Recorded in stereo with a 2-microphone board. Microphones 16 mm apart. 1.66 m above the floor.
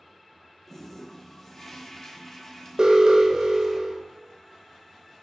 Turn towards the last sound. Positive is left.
turn(degrees=-45)  # may be behind; listen again after turning